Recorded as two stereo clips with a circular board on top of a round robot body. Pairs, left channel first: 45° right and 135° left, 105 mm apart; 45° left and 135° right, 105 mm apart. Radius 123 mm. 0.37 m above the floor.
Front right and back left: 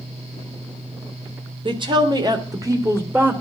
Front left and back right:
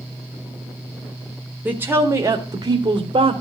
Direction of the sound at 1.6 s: 155° left.